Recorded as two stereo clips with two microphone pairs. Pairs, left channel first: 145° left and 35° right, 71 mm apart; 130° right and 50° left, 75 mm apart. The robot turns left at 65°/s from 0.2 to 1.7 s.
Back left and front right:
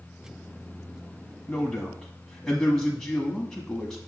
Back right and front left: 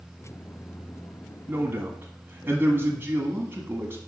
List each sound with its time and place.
1.5 s a man speaking: 85° left, 1.1 m; by 4.0 s 70° left, 1.1 m